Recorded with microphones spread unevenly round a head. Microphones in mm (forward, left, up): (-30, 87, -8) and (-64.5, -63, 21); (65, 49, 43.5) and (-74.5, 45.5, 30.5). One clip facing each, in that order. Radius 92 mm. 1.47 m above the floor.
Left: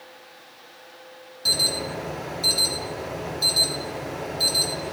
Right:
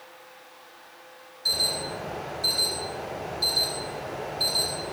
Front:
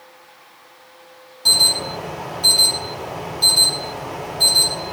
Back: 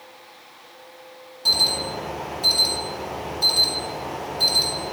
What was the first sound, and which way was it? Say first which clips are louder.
An alarm: left 3 dB, front 1 dB; 95° left.